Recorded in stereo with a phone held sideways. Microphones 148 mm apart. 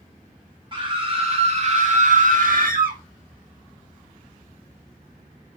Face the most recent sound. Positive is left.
turn(degrees=-70)  # may be behind; listen again after turning